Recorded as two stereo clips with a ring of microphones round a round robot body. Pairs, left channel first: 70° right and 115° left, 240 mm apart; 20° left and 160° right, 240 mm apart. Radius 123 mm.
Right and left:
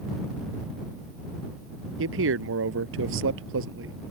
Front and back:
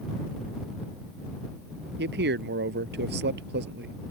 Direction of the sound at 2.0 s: 155° left.